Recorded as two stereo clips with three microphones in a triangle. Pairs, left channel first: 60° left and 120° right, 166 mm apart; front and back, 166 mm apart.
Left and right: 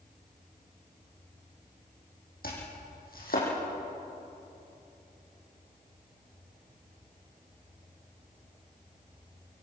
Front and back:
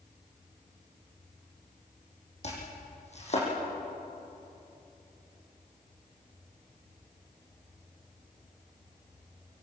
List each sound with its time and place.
2.4 s chopping: 45° left, 7.5 m